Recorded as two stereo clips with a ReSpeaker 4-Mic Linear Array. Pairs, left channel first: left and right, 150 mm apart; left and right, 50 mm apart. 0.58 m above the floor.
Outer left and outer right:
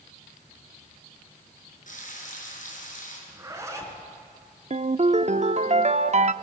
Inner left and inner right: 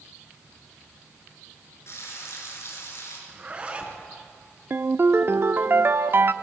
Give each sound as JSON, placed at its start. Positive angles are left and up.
{"t": 1.9, "sound": "frying", "side_deg": 60, "distance_m": 5.5}
{"t": 3.3, "sound": "a zipper", "side_deg": -20, "distance_m": 2.5}
{"t": 4.7, "sound": "a ringtone", "side_deg": -50, "distance_m": 0.6}